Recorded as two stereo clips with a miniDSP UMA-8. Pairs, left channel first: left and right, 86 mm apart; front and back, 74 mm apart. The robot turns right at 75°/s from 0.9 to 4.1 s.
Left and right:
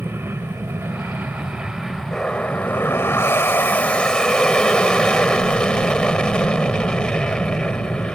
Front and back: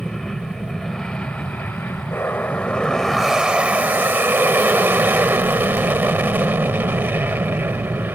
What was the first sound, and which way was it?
An aircraft, 80° right.